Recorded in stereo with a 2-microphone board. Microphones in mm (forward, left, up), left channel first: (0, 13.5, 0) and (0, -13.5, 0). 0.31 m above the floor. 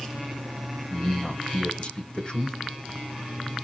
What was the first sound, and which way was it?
A man speaking, 35° left (ahead or behind).